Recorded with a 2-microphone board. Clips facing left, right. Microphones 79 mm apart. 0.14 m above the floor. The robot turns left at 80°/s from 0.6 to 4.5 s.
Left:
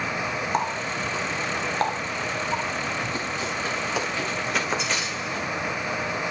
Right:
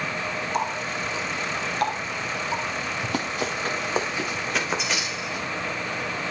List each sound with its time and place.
0.5 s a running tap: 40° left (ahead or behind), 1.6 m; by 2.6 s 25° right (ahead or behind), 1.6 m
3.0 s running footsteps: 90° right, 2.5 m; by 5.5 s 10° right (ahead or behind), 3.5 m